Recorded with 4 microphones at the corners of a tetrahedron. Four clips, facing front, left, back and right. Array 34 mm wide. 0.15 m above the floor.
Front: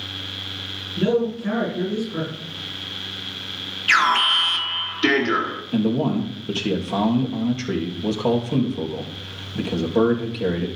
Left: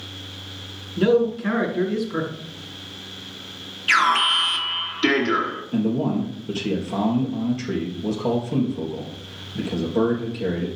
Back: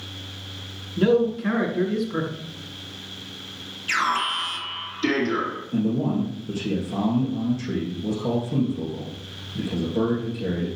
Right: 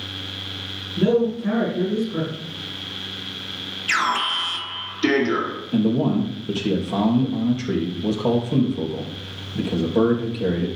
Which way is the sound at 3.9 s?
25° left.